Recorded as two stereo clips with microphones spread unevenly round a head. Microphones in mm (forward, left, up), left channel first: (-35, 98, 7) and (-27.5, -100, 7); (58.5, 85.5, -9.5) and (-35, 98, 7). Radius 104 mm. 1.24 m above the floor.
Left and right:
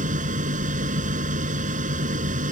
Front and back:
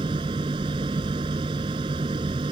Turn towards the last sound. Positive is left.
turn(degrees=-140)